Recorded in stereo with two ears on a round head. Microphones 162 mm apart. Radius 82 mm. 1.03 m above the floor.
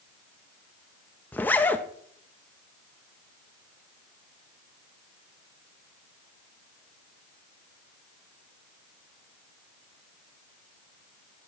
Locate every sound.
1.3 s a zipper: 10° left (ahead or behind), 0.6 m